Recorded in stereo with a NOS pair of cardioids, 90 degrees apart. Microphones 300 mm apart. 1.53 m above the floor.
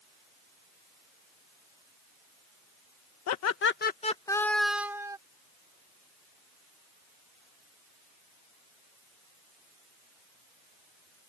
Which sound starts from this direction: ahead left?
Laughter, at 3.3 s.